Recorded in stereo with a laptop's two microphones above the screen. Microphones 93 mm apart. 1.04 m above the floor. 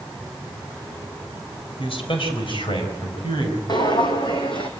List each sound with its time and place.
1.8 s a man speaking: 80° left, 3.5 m; by 3.6 s 65° left (ahead or behind), 5 m
3.7 s footsteps: 55° left (ahead or behind), 2 m; by 4.7 s 65° left (ahead or behind), 2.5 m